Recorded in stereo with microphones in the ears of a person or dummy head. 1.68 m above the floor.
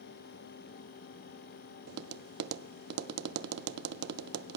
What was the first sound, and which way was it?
Tapping, 60° right (ahead or behind).